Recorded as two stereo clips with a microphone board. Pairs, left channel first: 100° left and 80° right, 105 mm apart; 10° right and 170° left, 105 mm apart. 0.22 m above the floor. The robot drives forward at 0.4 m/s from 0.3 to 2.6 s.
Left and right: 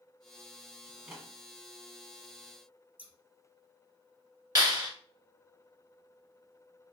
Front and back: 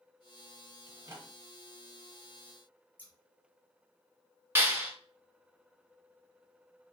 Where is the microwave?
155° right, 1.0 m; by 1.3 s 160° right, 1.1 m.